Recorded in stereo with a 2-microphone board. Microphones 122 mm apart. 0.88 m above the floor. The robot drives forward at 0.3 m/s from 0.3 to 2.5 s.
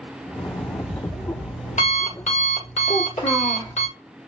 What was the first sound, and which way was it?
An alarm clock, 75° left (ahead or behind).